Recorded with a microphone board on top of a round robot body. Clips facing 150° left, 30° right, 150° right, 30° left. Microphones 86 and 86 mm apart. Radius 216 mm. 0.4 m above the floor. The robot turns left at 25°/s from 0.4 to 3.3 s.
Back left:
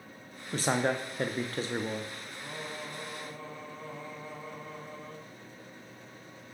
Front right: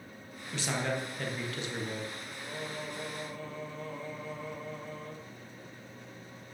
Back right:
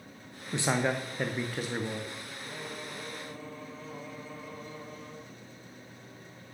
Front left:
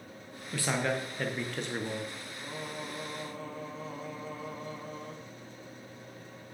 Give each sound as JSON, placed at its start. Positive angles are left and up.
{"t": 0.5, "sound": "a man speaking", "azimuth_deg": 155, "distance_m": 0.9}
{"t": 2.4, "sound": "singing", "azimuth_deg": 100, "distance_m": 1.5}